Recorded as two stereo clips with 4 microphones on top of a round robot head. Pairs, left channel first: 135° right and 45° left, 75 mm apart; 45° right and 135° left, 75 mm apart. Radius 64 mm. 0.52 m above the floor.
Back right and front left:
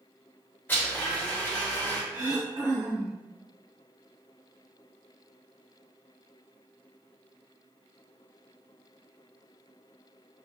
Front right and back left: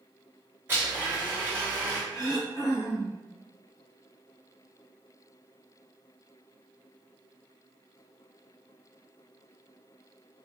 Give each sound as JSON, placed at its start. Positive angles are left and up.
{"t": 0.7, "sound": "a blender", "azimuth_deg": 175, "distance_m": 1.7}
{"t": 2.1, "sound": "throat clearing", "azimuth_deg": 10, "distance_m": 1.3}